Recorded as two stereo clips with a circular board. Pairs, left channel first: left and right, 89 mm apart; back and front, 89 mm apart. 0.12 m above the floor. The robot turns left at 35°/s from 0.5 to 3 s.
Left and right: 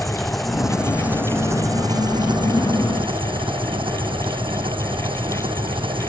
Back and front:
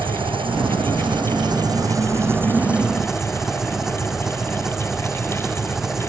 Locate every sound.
0.0 s an engine running: straight ahead; by 6.1 s 85° right